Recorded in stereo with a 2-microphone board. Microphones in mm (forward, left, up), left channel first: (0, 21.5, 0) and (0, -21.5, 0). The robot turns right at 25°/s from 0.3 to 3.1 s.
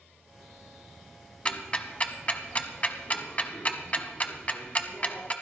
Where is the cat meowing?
No cat meowing in this recording.